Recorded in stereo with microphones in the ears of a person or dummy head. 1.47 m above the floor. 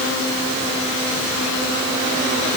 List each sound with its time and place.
Only background noise.